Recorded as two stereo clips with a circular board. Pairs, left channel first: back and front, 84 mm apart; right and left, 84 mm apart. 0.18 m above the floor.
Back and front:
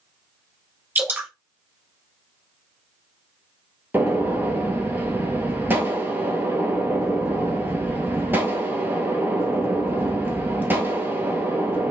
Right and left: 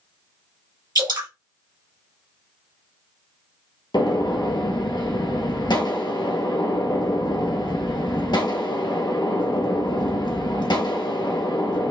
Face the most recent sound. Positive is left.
turn(degrees=-65)